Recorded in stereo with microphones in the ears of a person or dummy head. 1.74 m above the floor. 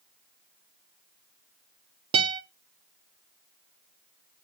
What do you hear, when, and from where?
2.1 s a guitar: 35° right (ahead or behind), 0.8 m